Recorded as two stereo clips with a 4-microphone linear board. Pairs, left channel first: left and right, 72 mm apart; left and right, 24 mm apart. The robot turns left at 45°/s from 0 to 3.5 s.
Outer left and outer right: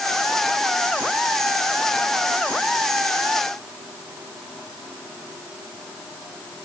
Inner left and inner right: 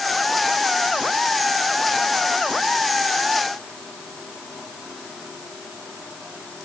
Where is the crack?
I don't hear a crack.